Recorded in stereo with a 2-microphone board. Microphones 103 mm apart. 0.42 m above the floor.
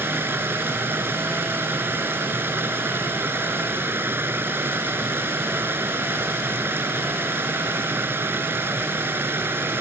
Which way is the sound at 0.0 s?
20° right (ahead or behind).